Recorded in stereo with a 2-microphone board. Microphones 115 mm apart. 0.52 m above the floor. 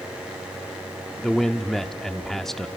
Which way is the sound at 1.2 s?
Centre (ahead or behind).